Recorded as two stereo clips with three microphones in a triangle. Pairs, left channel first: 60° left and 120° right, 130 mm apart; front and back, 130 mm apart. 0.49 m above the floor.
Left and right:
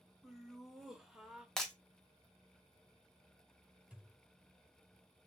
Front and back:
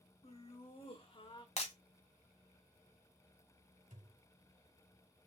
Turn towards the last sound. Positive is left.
turn(degrees=160)